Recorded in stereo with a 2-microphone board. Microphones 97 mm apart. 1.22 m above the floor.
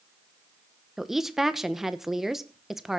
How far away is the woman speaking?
About 0.9 m.